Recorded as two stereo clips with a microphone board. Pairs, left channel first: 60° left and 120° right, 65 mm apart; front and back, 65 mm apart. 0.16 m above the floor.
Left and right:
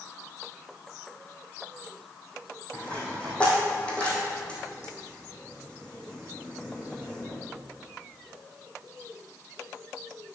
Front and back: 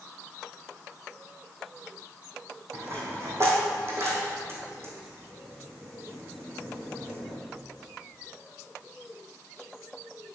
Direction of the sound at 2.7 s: 130° left.